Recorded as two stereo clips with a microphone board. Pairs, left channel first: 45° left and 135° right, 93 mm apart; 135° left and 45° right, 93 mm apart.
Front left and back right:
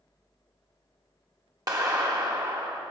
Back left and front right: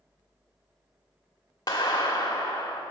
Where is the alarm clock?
No alarm clock in this recording.